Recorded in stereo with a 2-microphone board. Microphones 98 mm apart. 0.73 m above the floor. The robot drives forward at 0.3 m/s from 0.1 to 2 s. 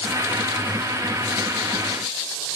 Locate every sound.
Only background noise.